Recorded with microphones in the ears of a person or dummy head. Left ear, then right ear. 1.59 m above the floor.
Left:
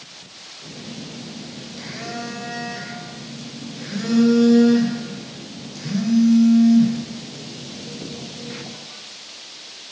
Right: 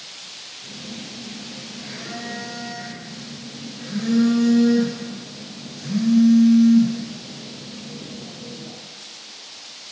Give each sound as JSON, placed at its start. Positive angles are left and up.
{"t": 0.6, "sound": "a phone buzzing", "side_deg": 40, "distance_m": 0.7}